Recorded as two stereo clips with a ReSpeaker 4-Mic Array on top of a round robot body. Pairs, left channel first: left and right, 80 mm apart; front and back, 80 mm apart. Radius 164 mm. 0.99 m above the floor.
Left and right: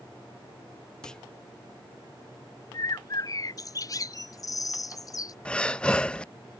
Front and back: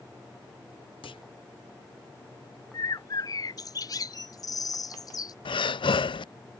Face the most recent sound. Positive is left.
turn(degrees=10)